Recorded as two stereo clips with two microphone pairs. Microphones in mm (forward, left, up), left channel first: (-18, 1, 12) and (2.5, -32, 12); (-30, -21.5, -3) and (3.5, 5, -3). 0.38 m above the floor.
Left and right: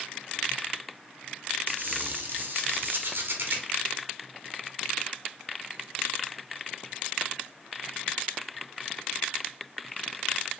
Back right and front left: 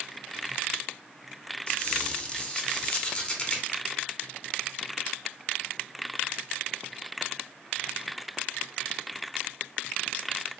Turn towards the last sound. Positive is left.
turn(degrees=-80)